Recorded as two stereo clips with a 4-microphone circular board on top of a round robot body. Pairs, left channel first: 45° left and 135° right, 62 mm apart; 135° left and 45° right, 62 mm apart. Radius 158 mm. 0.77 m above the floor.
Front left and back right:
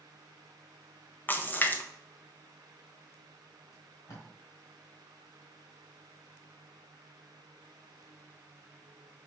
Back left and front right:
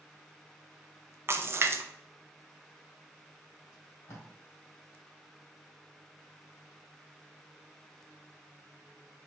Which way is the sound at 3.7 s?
90° left.